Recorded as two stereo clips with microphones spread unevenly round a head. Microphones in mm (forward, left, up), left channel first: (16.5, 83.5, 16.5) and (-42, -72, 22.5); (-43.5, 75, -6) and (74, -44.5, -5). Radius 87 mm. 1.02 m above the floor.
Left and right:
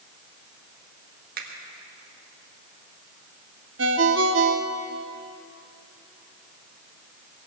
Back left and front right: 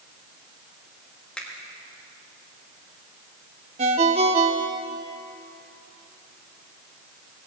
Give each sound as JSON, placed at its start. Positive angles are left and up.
{"t": 1.4, "sound": "a finger snap", "azimuth_deg": -140, "distance_m": 1.7}
{"t": 3.8, "sound": "a ringtone", "azimuth_deg": -100, "distance_m": 0.9}